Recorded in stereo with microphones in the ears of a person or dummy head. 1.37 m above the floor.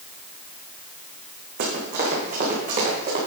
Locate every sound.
1.6 s running footsteps: 55° right (ahead or behind), 4.5 m; by 3.2 s 35° right (ahead or behind), 5.5 m